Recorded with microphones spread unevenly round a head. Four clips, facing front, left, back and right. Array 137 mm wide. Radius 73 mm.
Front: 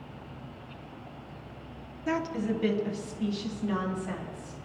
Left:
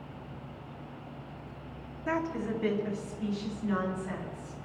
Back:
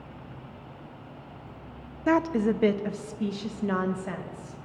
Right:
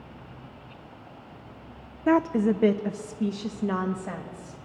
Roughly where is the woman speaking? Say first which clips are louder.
Right 10 dB, back 6 dB; behind right.